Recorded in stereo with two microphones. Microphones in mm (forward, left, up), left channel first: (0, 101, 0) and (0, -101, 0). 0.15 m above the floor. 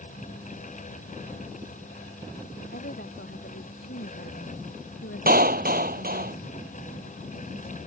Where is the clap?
50° right (ahead or behind).